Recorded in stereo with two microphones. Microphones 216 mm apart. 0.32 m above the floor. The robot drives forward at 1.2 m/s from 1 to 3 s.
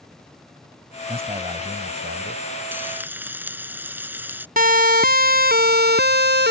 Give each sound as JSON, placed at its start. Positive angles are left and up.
{"t": 1.1, "sound": "a man speaking", "side_deg": -25}
{"t": 2.7, "sound": "frying", "side_deg": -10}
{"t": 4.6, "sound": "a siren", "side_deg": -40}